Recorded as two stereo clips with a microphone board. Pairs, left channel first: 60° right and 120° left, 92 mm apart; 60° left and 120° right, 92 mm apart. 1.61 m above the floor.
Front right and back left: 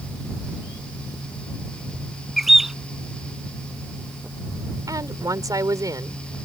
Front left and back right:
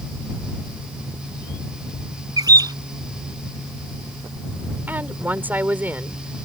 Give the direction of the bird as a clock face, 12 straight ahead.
5 o'clock.